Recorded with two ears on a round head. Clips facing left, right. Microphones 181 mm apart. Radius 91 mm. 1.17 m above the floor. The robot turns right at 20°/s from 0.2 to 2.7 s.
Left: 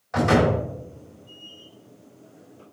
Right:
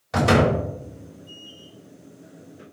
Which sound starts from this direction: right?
A door slam, at 0.1 s.